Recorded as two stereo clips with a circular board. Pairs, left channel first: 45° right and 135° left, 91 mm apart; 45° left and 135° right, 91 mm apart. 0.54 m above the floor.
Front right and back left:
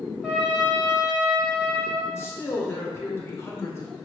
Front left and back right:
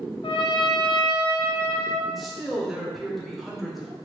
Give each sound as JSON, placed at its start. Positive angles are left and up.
{"t": 0.2, "sound": "a trumpet", "azimuth_deg": 50, "distance_m": 1.2}
{"t": 2.0, "sound": "a man speaking", "azimuth_deg": -45, "distance_m": 0.6}